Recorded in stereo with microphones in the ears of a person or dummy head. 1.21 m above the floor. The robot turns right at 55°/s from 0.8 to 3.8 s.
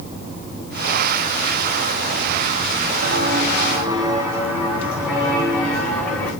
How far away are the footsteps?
About 4 m.